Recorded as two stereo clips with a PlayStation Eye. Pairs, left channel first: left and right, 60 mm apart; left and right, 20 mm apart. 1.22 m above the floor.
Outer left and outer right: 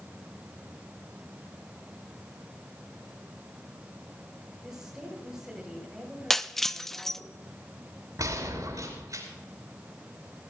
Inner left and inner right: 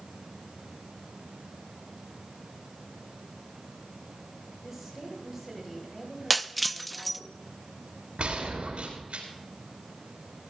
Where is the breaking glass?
5° left (ahead or behind), 0.6 m.